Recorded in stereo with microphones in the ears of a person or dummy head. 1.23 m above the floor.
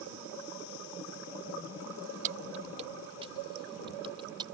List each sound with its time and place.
2.2 s keys jangling: 40° right (ahead or behind); by 4.5 s 25° right (ahead or behind)